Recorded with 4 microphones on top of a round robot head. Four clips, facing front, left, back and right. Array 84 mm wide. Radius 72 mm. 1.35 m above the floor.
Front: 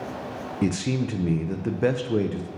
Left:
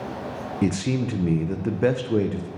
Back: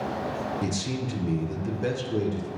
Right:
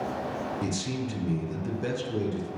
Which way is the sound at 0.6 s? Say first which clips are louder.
Left 7 dB, front 5 dB; 55° left.